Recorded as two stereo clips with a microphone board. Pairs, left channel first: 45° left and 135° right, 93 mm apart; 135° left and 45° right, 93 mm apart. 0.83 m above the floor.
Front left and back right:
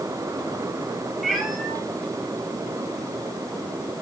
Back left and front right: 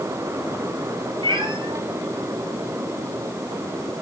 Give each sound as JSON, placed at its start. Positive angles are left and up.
{"t": 1.2, "sound": "a cat meowing", "azimuth_deg": -45, "distance_m": 1.5}